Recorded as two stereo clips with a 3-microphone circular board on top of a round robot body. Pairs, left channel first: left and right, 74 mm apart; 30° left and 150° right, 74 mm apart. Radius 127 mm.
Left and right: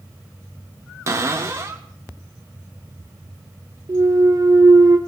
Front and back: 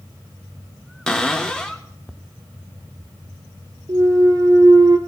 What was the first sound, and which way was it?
A cupboard door, 50° right.